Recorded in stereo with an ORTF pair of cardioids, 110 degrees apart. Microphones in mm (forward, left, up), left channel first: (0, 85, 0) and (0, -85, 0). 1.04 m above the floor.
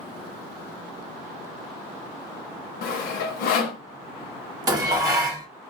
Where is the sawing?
70° left, 0.8 m.